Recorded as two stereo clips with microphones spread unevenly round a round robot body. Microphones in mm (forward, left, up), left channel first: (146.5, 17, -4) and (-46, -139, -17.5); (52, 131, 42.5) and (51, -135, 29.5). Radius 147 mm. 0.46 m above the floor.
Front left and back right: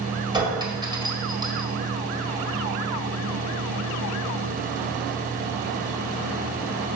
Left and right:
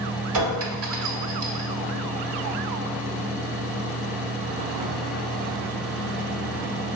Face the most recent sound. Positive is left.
turn(degrees=-70)